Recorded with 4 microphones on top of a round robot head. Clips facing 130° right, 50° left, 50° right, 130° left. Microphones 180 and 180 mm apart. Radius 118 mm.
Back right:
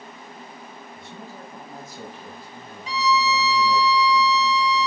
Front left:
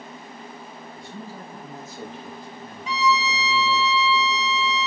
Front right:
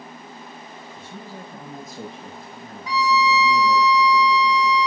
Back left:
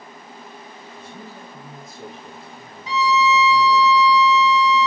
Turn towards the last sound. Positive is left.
turn(degrees=-175)